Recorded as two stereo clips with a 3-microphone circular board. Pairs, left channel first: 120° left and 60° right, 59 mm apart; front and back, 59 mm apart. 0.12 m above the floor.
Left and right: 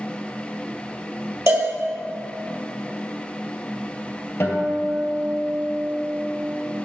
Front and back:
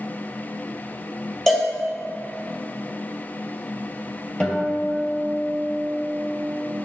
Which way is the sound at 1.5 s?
85° right.